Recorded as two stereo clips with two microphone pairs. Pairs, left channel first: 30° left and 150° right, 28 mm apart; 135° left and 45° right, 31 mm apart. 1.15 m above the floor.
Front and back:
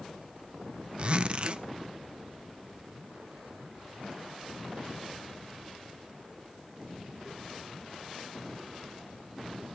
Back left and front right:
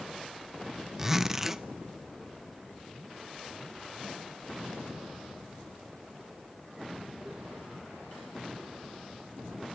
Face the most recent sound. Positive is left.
turn(degrees=-115)